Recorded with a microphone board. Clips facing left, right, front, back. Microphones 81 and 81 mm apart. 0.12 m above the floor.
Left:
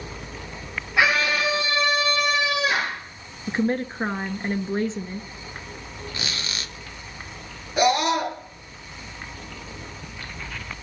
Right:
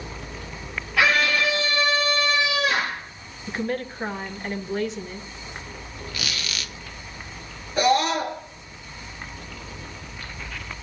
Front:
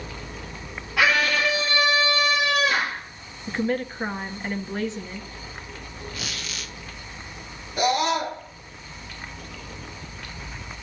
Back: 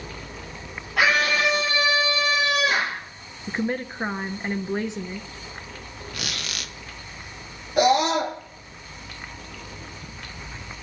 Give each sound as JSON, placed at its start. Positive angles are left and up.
{"t": 1.0, "sound": "a scream", "azimuth_deg": 155, "distance_m": 3.5}
{"t": 3.5, "sound": "a woman speaking", "azimuth_deg": 120, "distance_m": 1.3}
{"t": 6.1, "sound": "a squeak", "azimuth_deg": 150, "distance_m": 1.6}
{"t": 7.8, "sound": "a scream", "azimuth_deg": 170, "distance_m": 8.0}